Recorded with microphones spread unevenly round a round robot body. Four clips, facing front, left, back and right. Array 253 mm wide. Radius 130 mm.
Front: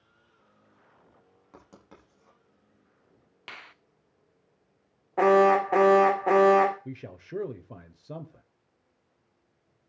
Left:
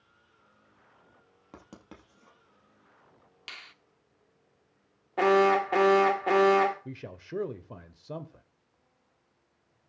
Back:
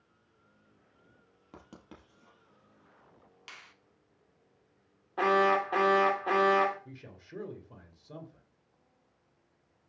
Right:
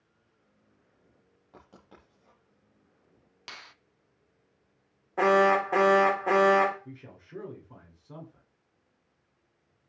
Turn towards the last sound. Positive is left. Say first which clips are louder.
# left 6 dB, front 9 dB
turn(degrees=50)